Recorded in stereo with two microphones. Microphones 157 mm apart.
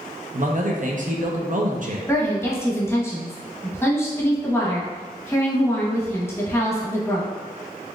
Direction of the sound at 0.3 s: 55° right (ahead or behind).